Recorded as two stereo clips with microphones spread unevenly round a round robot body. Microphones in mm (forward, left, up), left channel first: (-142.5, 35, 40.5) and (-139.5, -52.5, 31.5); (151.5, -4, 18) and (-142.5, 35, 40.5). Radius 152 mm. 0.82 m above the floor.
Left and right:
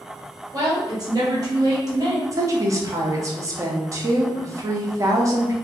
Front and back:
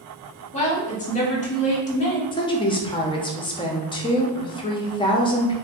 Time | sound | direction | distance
0.5 | a woman speaking | 65° right | 1.1 m
2.3 | a woman speaking | 70° right | 0.6 m